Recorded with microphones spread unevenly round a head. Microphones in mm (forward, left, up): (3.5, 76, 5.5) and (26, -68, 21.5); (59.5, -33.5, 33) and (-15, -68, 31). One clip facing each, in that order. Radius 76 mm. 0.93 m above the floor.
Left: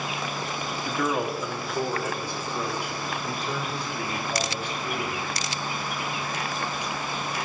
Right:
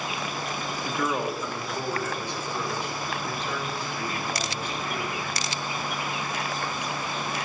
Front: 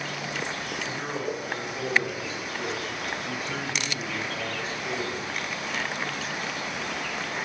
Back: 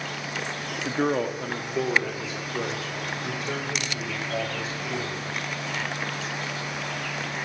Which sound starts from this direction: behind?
A man speaking, at 0.8 s.